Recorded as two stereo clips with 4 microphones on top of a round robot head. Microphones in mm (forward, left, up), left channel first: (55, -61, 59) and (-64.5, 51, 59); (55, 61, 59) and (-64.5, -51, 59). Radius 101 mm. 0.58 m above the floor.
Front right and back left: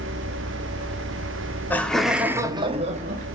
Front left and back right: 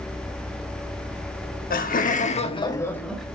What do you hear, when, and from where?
1.7 s laughter: 35° left, 1.9 m; by 3.3 s 135° left, 1.7 m